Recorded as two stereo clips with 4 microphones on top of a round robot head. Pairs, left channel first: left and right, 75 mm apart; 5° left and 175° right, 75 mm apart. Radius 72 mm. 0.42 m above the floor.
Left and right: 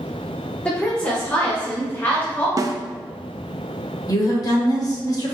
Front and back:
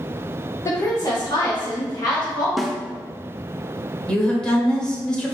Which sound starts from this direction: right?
A snare drum, at 2.6 s.